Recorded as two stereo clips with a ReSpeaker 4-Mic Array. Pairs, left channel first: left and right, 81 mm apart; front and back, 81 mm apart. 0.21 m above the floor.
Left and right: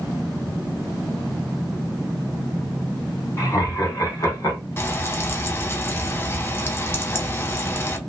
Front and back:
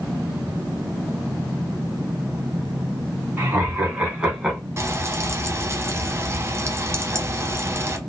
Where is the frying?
140° left, 0.6 m.